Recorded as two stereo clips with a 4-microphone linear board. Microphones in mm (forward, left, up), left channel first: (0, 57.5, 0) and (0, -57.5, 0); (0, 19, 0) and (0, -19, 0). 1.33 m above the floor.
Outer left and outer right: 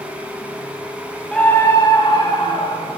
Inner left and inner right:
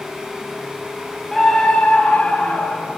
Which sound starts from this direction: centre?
A scream, at 1.3 s.